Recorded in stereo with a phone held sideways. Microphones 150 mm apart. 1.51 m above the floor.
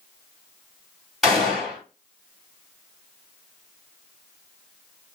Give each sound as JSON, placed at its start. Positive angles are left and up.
{"t": 1.2, "sound": "a gunshot", "side_deg": 0, "distance_m": 1.7}